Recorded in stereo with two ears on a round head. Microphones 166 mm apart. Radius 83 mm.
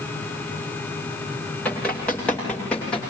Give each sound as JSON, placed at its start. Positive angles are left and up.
{"t": 1.6, "sound": "running footsteps", "side_deg": 10, "distance_m": 9.5}